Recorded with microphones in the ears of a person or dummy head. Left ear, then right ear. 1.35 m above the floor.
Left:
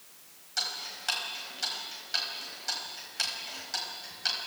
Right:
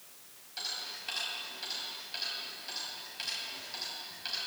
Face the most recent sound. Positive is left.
turn(degrees=50)  # may be behind; listen again after turning